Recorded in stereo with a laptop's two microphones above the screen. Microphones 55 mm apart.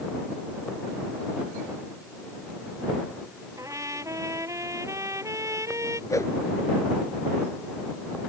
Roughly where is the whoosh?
Left.